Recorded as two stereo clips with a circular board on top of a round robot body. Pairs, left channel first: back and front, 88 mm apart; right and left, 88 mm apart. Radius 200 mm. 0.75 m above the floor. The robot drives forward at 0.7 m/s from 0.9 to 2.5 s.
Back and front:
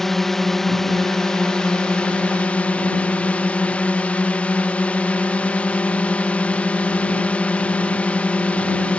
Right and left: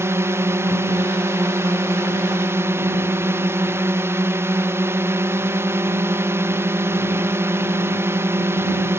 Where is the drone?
100° left; by 9.0 s 120° left.